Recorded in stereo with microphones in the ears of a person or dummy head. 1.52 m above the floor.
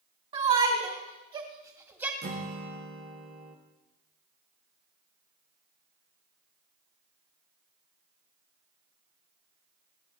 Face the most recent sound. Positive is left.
turn(degrees=-50)  # may be behind; listen again after turning